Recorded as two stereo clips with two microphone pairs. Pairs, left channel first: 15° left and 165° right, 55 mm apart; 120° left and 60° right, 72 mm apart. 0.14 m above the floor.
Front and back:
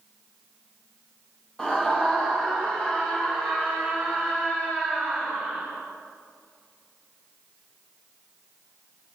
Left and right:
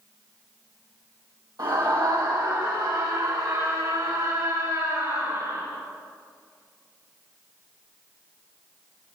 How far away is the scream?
About 4 m.